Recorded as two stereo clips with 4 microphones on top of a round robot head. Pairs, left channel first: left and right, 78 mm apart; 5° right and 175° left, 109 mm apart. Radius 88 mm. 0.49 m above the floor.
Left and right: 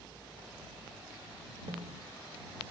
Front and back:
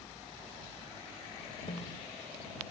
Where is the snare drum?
50° right.